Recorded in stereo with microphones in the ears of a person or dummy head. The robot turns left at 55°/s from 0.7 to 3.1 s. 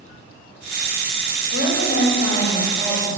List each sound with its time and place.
1.5 s a woman speaking: 80° left, 7 m; by 3.2 s 10° right, 7 m